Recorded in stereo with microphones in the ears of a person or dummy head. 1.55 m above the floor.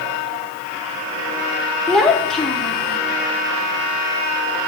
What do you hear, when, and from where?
1.9 s a child speaking: centre (ahead or behind), 0.6 m